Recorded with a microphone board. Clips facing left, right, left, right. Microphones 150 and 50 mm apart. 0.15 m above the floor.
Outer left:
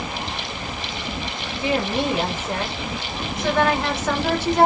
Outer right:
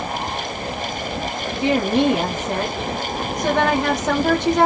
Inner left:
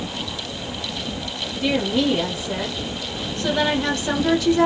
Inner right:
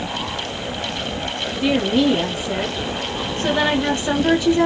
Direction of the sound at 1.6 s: 20° right (ahead or behind).